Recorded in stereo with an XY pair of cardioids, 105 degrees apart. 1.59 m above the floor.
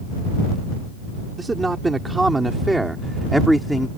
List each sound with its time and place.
1.4 s a man speaking: 20° right; by 3.9 s straight ahead